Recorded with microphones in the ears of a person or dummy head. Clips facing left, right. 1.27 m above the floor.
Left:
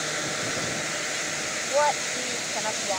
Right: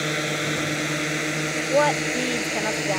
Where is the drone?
35° right (ahead or behind); by 3.0 s 60° right (ahead or behind).